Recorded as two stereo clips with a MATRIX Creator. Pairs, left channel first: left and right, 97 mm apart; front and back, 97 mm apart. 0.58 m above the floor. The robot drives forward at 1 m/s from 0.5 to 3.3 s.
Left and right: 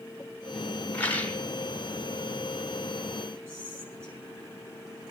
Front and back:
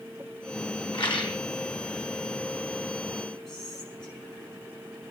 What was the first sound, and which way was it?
A rattle, 15° left.